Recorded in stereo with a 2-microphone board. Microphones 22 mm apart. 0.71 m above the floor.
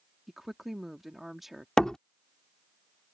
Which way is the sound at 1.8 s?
30° left (ahead or behind).